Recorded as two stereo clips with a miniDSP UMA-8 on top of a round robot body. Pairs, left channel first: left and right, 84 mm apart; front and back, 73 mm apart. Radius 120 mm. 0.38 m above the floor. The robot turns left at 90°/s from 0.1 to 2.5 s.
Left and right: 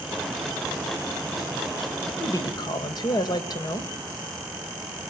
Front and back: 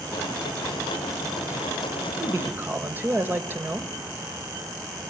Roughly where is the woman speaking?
Behind left.